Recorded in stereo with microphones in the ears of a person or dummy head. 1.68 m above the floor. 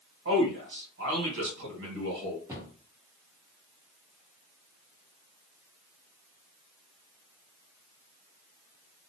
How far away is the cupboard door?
About 0.7 m.